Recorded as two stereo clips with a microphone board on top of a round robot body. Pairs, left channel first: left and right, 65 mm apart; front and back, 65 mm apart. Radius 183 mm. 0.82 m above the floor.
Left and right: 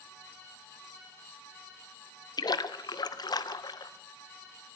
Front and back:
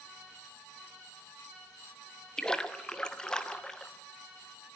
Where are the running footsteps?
No running footsteps in this recording.